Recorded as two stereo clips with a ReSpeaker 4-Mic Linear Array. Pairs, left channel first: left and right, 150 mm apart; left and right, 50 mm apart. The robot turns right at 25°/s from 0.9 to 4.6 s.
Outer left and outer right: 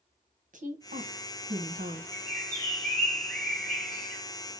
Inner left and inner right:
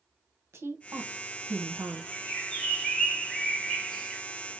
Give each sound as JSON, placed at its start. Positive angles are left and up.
{"t": 0.5, "sound": "a woman speaking", "side_deg": -60, "distance_m": 1.2}
{"t": 2.1, "sound": "a bird", "side_deg": 20, "distance_m": 1.2}